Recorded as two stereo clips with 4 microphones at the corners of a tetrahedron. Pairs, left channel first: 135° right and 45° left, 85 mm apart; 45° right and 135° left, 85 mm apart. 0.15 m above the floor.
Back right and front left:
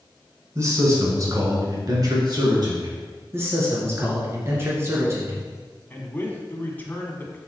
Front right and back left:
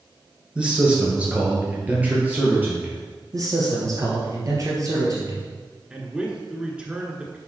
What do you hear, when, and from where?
0.6 s a man speaking: 65° left, 1.7 m; by 2.9 s 70° left, 2.5 m
3.3 s a man speaking: 100° left, 2 m
5.9 s a man speaking: 165° right, 1.2 m